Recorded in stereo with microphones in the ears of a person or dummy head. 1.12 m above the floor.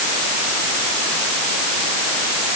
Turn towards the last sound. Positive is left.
No sound to turn to.